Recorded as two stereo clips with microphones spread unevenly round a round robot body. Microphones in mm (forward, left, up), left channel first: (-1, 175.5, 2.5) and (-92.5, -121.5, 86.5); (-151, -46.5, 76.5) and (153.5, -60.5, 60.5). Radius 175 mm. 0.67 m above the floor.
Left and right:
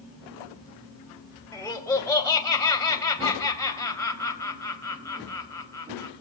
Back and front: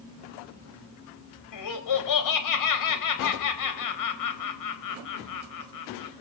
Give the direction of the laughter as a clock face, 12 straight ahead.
7 o'clock.